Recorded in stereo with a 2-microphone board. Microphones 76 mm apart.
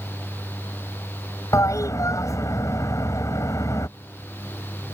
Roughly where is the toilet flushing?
Left.